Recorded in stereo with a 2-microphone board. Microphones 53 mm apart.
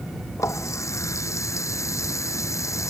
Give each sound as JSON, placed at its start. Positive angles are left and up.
{"t": 0.4, "sound": "a running tap", "side_deg": 70}